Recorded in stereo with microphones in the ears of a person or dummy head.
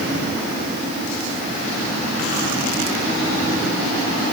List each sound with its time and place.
Only background noise.